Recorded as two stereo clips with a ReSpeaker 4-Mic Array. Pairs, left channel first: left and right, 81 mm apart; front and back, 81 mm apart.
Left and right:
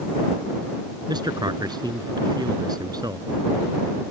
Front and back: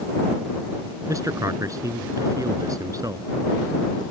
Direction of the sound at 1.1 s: 130° right.